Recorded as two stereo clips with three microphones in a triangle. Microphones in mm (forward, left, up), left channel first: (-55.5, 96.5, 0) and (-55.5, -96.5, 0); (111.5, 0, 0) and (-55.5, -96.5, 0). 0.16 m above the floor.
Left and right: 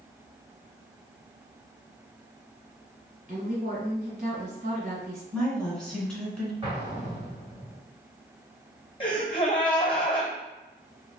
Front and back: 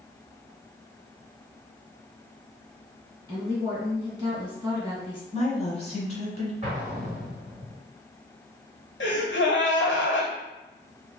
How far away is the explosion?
About 1.6 m.